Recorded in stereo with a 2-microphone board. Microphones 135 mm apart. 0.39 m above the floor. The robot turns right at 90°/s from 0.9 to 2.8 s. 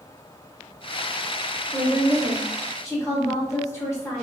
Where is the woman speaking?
10° right (ahead or behind), 1.1 m; by 4.2 s 20° left (ahead or behind), 1.1 m.